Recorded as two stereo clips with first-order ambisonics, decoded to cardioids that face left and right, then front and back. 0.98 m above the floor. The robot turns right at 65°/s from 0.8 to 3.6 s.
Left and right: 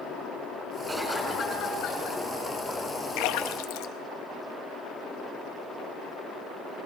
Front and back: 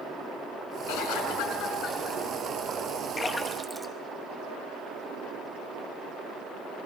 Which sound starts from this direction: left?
A splash, at 3.2 s.